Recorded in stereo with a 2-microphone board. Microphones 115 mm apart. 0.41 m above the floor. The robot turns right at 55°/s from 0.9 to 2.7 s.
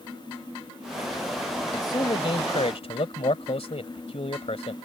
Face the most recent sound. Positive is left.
turn(degrees=90)